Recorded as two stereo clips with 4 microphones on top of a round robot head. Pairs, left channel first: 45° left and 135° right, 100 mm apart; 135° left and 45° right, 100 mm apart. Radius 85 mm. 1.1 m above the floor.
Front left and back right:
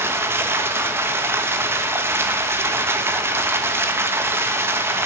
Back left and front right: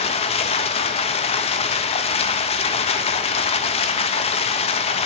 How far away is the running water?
About 1.0 m.